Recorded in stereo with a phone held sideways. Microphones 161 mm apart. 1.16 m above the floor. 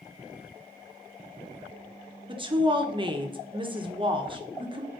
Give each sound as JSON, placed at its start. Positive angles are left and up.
{"t": 2.3, "sound": "a woman speaking", "side_deg": -30, "distance_m": 1.1}